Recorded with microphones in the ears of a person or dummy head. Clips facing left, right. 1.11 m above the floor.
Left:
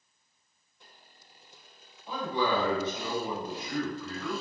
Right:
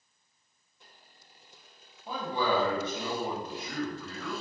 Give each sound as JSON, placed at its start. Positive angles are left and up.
{"t": 2.1, "sound": "a man speaking", "side_deg": -30, "distance_m": 1.2}